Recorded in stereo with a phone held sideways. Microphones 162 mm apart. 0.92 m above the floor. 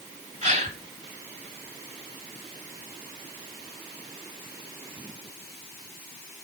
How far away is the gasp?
About 1.7 m.